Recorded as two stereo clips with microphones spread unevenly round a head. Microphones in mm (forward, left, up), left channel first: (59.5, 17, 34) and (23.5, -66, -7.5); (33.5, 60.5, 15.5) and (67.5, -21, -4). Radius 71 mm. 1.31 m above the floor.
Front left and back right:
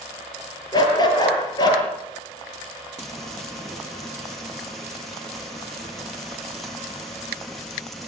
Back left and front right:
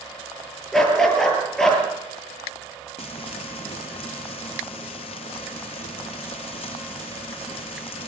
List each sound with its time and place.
0.7 s a dog barking: 30° left, 9.5 m
3.0 s frying: 150° left, 1.3 m